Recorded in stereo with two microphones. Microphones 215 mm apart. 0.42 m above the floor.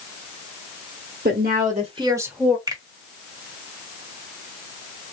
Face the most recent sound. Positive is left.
turn(degrees=-15)  # may be behind; listen again after turning